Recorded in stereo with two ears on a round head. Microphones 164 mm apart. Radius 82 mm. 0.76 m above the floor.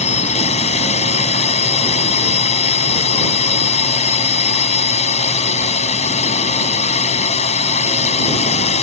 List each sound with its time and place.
0.0 s a drone: 35° left (ahead or behind)